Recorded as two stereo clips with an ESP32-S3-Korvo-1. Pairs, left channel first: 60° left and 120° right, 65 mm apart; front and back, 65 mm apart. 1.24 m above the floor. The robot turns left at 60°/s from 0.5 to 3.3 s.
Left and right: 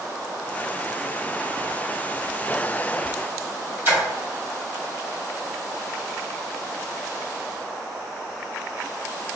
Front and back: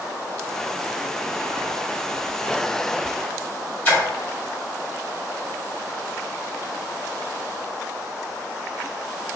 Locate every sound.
3.9 s a splash: 65° right, 1.7 m